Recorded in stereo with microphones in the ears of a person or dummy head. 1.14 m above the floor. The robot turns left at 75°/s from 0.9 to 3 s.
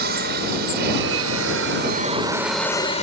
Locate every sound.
0.0 s an aircraft: 60° right; by 3.0 s 145° left